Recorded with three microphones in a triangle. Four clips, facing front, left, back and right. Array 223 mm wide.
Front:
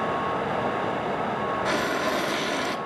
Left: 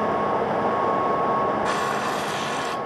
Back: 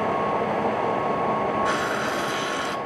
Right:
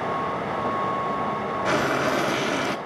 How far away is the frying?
About 0.6 m.